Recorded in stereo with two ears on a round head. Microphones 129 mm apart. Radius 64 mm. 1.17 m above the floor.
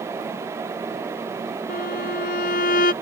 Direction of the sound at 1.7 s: 70° left (ahead or behind).